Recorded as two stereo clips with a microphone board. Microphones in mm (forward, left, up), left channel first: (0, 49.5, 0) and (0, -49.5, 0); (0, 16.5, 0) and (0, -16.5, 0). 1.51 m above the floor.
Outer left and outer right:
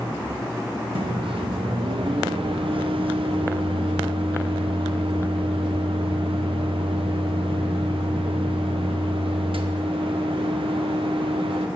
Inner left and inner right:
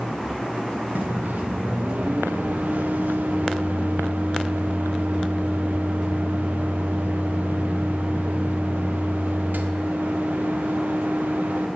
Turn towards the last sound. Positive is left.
turn(degrees=-75)  # may be behind; listen again after turning